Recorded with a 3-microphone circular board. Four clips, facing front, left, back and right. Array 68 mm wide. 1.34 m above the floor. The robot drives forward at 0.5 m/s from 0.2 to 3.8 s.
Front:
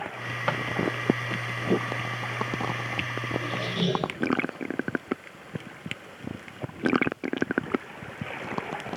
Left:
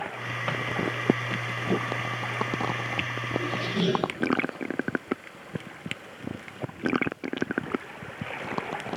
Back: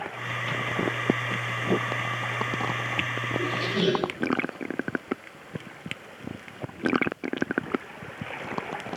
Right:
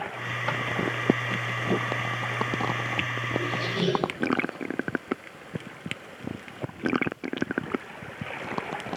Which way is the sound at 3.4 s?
165° left.